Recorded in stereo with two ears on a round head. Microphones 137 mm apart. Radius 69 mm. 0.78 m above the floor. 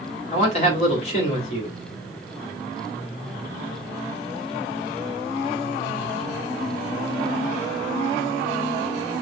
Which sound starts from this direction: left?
A man speaking, at 0.3 s.